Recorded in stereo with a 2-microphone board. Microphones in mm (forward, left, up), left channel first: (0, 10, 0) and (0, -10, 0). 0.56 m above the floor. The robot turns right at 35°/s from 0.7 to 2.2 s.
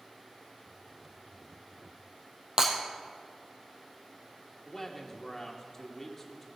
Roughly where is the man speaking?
Centre.